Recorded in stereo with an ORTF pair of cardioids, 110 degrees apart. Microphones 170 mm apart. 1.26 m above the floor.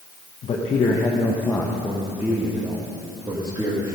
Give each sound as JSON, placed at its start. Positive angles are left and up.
{"t": 0.4, "sound": "a man speaking", "azimuth_deg": 40, "distance_m": 1.2}